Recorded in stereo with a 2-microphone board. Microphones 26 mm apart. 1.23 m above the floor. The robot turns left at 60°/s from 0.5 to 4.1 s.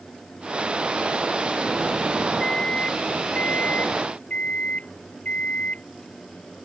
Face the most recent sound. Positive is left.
turn(degrees=55)